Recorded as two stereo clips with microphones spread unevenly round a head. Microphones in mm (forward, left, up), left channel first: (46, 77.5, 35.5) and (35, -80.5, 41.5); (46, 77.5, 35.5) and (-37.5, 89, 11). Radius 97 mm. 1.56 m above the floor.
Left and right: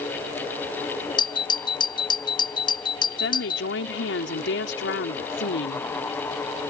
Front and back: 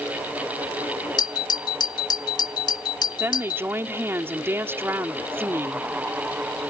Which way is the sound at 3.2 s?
105° left.